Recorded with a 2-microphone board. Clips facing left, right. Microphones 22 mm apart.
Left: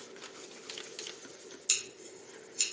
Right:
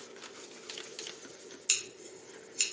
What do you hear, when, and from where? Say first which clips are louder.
1.7 s scissors: right 1 dB; 30° right (ahead or behind), 0.7 m